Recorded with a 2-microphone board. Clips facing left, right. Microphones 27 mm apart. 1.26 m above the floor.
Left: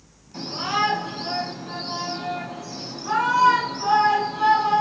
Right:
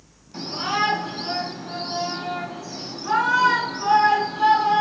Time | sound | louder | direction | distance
0.3 | a shout | even | 20° right (ahead or behind) | 2.5 m